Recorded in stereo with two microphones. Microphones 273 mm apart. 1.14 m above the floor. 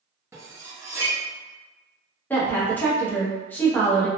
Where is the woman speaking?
5° left (ahead or behind), 0.9 m.